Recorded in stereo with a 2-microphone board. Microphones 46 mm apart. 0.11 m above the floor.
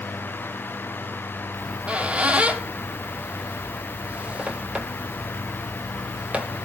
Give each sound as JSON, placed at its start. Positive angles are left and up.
{"t": 1.5, "sound": "a squeak", "side_deg": -25, "distance_m": 0.9}